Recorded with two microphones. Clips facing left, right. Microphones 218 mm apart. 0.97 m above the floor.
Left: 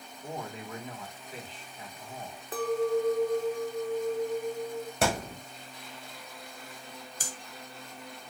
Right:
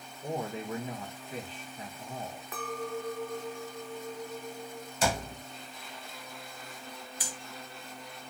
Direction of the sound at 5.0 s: 65° left (ahead or behind).